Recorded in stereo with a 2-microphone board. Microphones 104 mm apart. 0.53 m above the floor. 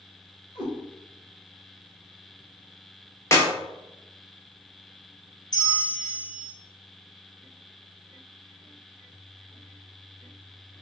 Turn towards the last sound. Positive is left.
turn(degrees=40)  # may be behind; listen again after turning